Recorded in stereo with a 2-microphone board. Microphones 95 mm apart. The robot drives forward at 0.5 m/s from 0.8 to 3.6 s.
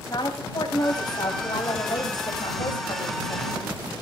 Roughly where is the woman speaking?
Left.